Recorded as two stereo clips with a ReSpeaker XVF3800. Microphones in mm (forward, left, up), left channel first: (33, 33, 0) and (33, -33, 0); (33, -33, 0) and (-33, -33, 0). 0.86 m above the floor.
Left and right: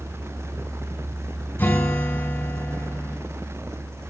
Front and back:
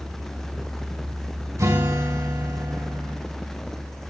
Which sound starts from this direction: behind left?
A guitar, at 1.6 s.